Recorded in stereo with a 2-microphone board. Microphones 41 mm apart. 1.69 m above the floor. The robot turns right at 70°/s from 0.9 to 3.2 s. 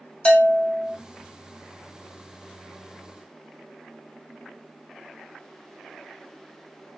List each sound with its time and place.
0.2 s a bell: 25° left (ahead or behind), 0.9 m